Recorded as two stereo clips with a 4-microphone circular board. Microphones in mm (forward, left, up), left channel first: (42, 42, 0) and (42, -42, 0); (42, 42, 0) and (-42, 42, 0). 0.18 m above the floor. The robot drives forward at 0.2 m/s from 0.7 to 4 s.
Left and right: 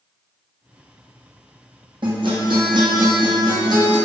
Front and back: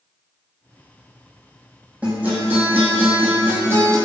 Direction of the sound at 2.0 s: 105° right.